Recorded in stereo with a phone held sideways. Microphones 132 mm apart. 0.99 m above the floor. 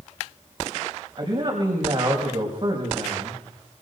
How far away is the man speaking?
About 5.5 m.